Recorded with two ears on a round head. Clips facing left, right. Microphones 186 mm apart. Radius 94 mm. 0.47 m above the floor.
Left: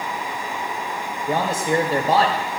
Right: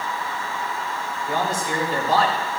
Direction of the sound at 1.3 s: 45° left (ahead or behind).